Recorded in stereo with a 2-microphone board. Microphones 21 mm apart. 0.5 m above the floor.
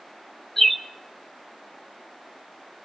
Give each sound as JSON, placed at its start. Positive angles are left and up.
{"t": 0.6, "sound": "a bird", "side_deg": 15, "distance_m": 0.7}